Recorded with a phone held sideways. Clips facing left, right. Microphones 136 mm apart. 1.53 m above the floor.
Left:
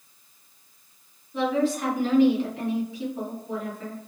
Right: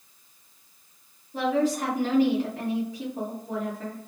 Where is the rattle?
I don't hear a rattle.